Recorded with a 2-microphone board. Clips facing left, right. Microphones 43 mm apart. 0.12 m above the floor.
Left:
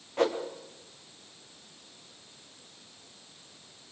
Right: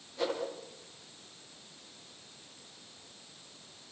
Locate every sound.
0.2 s a whoosh: 55° left (ahead or behind), 6.5 m